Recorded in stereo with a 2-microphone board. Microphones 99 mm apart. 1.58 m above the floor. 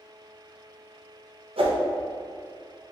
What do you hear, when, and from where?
1.6 s a whoosh: 70° right (ahead or behind), 0.7 m